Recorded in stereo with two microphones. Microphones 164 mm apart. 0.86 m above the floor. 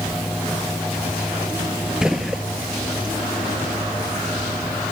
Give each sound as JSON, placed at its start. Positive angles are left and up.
{"t": 2.0, "sound": "a gunshot", "side_deg": -5, "distance_m": 1.0}